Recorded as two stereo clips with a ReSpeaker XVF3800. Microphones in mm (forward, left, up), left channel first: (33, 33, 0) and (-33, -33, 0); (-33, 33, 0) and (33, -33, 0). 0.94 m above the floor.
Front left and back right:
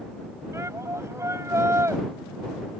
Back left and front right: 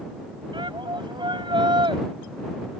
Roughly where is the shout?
Right.